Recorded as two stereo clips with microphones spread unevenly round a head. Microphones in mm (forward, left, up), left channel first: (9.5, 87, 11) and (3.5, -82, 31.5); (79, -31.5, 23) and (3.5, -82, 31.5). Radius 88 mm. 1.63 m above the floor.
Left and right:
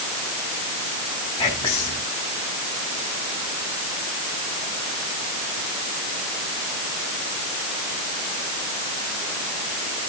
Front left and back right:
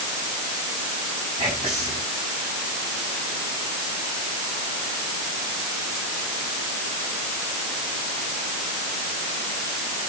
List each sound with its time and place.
1.4 s whispering: 150° left, 2.5 m